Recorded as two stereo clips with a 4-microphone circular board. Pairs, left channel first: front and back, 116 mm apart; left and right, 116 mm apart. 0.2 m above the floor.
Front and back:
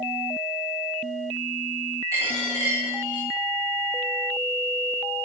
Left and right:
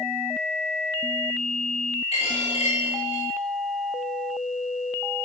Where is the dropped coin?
120° left, 8.5 m.